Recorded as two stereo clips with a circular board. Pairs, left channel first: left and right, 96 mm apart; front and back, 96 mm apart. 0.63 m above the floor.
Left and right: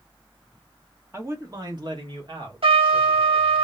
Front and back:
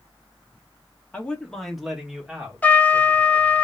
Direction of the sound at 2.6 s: 75° right.